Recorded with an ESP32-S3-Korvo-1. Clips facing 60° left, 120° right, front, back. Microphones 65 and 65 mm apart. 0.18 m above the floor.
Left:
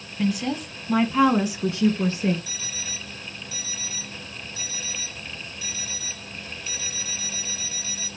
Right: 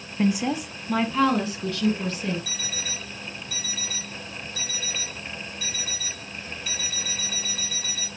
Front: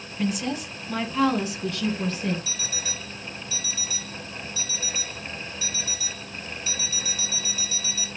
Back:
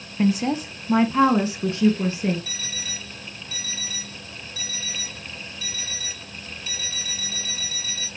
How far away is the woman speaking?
About 1.4 m.